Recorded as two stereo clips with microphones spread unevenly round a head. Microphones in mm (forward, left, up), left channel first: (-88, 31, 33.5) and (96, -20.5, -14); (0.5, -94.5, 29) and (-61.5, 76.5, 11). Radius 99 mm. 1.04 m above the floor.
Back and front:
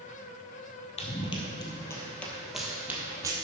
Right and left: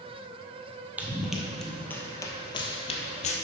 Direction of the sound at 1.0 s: 165° right.